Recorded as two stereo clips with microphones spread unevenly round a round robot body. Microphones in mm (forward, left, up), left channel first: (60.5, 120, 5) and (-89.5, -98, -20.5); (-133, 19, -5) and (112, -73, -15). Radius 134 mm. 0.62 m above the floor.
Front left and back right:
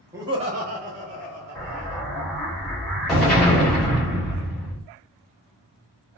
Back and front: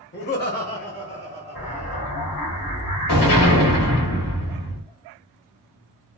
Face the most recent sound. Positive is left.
turn(degrees=145)